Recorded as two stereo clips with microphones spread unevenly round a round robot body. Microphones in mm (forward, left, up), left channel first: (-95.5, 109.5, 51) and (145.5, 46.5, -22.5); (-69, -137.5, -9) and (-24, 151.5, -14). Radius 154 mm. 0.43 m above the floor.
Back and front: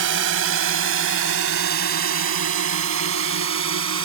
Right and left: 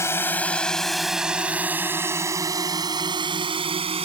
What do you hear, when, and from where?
0.0 s a drone: 20° right; by 4.1 s 10° left